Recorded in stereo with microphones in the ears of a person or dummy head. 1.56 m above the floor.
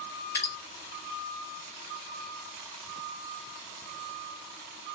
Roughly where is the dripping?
Centre.